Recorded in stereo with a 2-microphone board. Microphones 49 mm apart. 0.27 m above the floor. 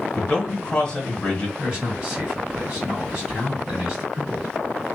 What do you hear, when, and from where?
0.2 s a man speaking: 20° left (ahead or behind), 1.3 m
1.6 s a man speaking: 15° right (ahead or behind), 1.6 m